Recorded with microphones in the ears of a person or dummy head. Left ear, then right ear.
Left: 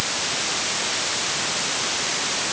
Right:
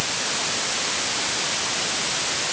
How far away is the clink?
No clink in this recording.